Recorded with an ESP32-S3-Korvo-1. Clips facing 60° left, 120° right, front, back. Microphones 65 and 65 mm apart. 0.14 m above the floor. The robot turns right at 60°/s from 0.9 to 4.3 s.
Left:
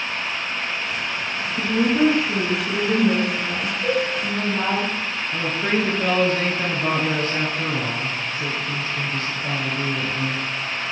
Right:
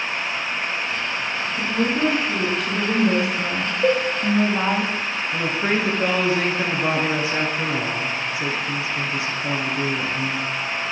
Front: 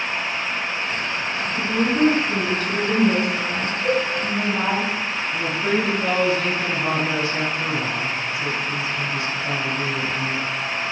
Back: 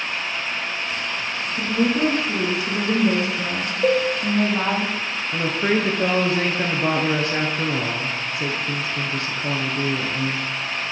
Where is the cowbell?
160° right, 2.5 m; by 4.0 s 150° right, 2.5 m.